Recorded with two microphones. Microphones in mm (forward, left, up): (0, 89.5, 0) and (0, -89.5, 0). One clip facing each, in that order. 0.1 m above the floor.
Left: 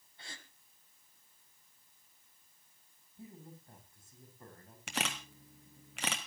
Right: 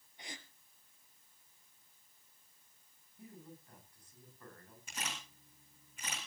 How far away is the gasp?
About 1.7 m.